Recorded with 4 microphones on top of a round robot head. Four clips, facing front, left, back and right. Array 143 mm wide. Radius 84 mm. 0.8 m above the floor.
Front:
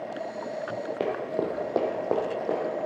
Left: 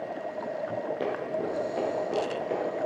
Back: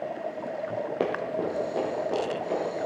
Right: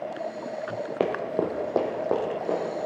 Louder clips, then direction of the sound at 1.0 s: Right 9 dB, front 1 dB; 100° right.